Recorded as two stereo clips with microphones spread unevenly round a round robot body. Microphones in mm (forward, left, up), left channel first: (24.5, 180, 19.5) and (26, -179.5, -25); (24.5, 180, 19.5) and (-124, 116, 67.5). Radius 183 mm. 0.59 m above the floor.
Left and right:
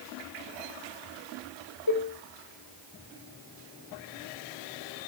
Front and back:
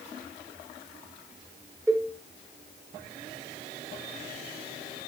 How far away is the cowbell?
About 1.2 m.